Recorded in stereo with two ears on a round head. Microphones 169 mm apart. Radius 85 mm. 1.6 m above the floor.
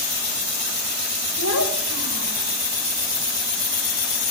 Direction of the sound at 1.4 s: 80° left.